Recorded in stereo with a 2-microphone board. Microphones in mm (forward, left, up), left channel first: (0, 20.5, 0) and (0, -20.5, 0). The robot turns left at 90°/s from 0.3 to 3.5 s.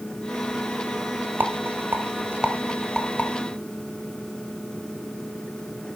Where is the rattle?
55° right (ahead or behind), 1.5 m; by 3.3 s 50° left (ahead or behind), 1.5 m.